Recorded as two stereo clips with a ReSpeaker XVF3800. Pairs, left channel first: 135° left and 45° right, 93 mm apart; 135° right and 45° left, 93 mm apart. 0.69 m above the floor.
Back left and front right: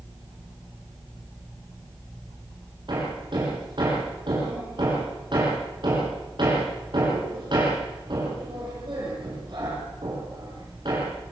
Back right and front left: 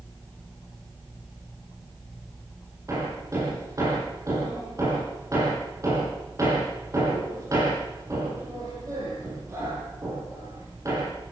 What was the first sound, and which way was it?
Hammering, 10° right.